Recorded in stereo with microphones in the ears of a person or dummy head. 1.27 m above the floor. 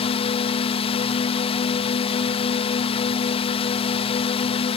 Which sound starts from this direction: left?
A drone, at 0.0 s.